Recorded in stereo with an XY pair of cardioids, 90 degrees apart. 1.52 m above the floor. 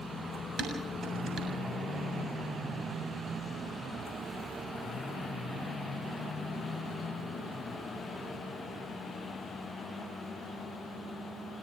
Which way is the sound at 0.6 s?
60° right.